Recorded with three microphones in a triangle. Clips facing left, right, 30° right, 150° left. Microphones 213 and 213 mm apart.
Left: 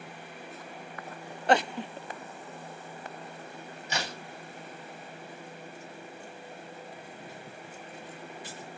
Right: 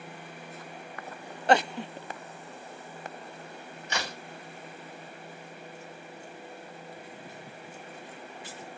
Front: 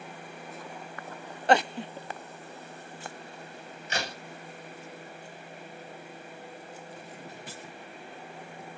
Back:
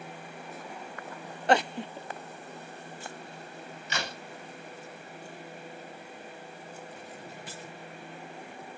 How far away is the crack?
About 2.5 m.